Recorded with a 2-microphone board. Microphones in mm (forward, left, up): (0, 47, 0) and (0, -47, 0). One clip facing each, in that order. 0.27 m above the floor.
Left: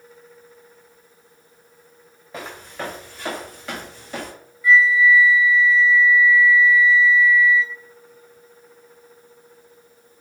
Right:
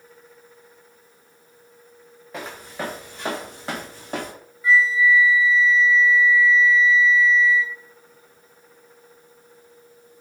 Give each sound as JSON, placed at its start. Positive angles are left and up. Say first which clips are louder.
{"t": 2.3, "sound": "footsteps", "louder": "even", "side_deg": 0, "distance_m": 1.4}
{"t": 4.6, "sound": "a flute", "louder": "left 3 dB", "side_deg": -25, "distance_m": 0.9}